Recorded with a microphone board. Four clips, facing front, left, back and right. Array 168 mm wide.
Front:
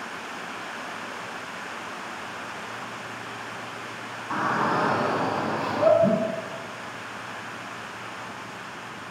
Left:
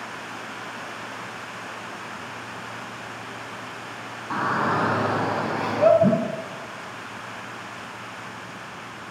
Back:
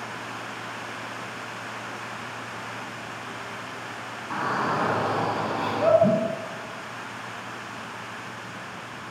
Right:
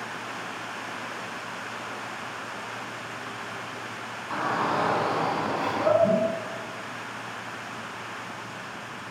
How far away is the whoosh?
About 1.1 m.